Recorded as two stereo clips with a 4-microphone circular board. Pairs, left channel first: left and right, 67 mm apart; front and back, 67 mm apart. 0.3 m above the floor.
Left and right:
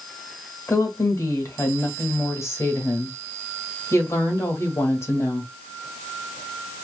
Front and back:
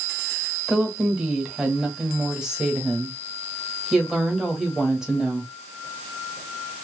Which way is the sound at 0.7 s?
105° left.